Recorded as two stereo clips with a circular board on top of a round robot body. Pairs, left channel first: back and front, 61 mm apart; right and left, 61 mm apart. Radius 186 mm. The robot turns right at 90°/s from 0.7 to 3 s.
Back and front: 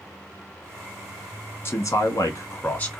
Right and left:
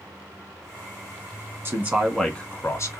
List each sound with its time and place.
1.6 s a man speaking: 130° left, 1.6 m; by 3.0 s 105° right, 1.6 m